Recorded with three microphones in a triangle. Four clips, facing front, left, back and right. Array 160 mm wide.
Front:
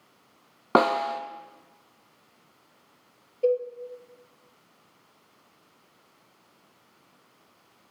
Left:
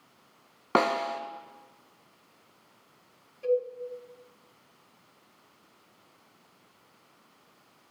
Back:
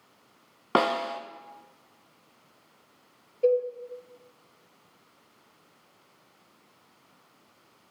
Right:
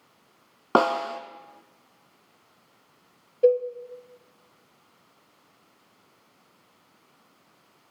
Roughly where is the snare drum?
Ahead right.